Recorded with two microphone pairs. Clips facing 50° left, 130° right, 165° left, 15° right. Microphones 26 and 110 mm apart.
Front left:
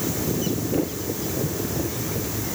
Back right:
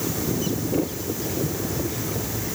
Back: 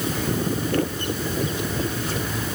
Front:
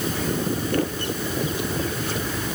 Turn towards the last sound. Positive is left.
No sound to turn to.